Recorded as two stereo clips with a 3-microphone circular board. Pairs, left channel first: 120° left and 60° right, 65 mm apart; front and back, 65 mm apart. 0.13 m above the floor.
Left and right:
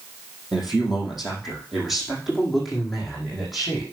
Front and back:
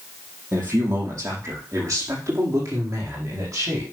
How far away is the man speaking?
About 4.5 m.